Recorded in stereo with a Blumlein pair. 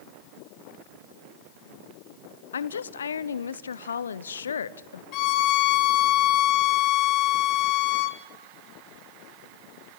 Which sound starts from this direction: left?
A woman speaking, at 2.5 s.